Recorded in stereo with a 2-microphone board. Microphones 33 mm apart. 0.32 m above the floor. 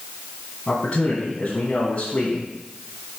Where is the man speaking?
35° left (ahead or behind), 2 m.